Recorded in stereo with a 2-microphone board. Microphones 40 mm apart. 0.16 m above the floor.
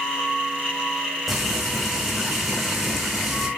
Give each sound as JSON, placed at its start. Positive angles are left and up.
{"t": 1.3, "sound": "frying", "side_deg": 0, "distance_m": 4.5}